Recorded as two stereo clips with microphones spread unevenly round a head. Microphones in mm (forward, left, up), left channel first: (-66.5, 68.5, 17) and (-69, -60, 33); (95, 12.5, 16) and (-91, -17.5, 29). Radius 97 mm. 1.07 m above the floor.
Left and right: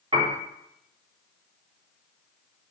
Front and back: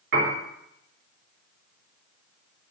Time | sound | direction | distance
0.1 | a piano | 140° right | 3.5 m